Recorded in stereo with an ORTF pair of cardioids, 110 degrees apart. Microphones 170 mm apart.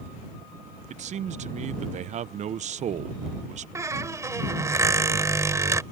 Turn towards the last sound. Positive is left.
turn(degrees=-15)